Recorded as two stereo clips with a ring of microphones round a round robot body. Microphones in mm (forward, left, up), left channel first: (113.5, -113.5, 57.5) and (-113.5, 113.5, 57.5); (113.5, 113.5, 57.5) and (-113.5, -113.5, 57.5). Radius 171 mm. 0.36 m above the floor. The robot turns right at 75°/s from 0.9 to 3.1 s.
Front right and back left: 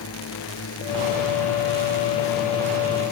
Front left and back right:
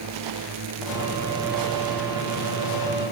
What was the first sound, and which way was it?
A drone, 95° right.